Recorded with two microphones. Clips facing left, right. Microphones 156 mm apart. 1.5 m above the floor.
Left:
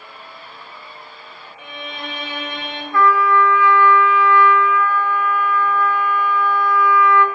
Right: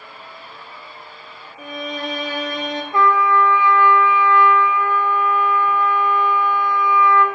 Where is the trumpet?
20° right (ahead or behind), 0.7 m.